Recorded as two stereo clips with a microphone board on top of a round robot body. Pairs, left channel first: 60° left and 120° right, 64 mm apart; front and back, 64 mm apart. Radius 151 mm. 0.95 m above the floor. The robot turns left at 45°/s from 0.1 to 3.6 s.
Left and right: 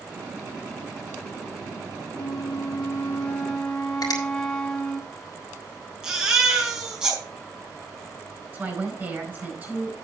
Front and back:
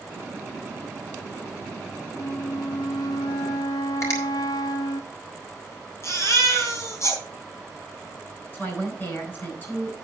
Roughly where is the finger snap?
Ahead left.